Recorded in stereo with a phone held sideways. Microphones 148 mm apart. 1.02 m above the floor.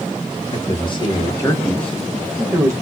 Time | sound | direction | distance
0.5 | a man speaking | 45° left (ahead or behind) | 1.4 m